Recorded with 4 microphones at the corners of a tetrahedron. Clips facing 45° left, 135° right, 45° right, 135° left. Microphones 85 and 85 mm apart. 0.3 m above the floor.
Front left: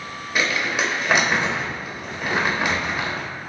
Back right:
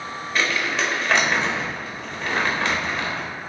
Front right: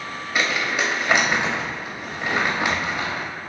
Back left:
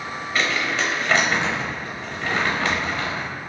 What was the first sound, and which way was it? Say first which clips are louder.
Crumpling: front left 1 dB, even; 5° right.